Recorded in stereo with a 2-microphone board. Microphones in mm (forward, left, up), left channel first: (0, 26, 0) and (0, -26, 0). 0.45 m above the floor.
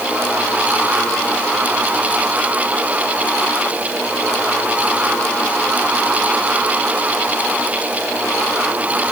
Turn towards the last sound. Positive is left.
No sound to turn to.